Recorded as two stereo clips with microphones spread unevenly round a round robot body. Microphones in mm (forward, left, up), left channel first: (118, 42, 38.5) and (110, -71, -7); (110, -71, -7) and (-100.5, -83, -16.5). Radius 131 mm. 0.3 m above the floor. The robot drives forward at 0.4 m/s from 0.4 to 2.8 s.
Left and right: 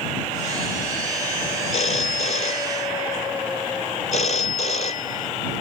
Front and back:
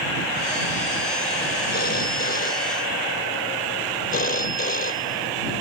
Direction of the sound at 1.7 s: 60° left.